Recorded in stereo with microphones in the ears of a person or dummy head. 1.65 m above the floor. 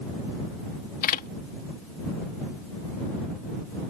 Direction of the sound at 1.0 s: 45° left (ahead or behind).